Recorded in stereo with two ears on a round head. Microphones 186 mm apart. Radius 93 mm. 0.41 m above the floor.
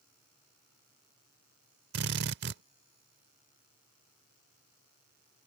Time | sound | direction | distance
1.9 | a drill | 50° right (ahead or behind) | ?